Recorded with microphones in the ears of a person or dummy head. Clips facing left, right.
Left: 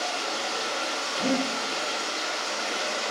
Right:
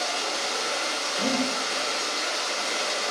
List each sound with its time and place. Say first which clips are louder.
0.0 s running water: right 1 dB; 60° right (ahead or behind), 1.7 m
1.2 s breathing: left 1 dB; 20° right (ahead or behind), 1.4 m